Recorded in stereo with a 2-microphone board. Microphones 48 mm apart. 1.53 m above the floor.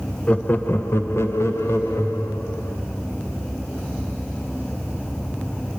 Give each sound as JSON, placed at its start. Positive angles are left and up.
{"t": 0.3, "sound": "laughter", "side_deg": 25, "distance_m": 0.9}